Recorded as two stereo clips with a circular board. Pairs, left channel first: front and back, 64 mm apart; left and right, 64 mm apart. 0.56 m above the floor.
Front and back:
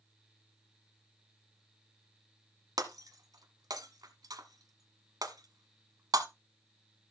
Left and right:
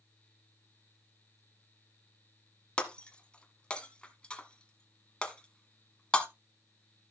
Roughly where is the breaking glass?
Behind.